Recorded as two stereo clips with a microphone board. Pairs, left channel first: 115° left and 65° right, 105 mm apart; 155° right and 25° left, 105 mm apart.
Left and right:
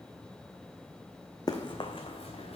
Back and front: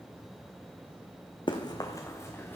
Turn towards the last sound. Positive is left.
turn(degrees=130)